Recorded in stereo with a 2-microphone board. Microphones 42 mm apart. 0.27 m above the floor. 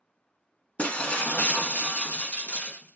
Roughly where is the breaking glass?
Left.